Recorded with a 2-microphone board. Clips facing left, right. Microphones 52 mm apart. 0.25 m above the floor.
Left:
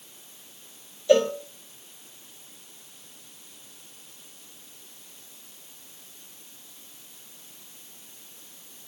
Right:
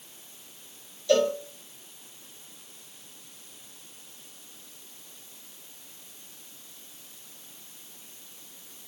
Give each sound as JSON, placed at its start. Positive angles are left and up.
{"t": 1.1, "sound": "a cowbell", "side_deg": 15, "distance_m": 1.1}